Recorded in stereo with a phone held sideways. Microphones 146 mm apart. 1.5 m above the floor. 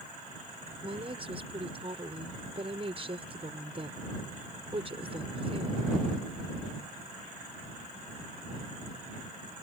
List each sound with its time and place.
0.8 s a woman speaking: 40° right (ahead or behind)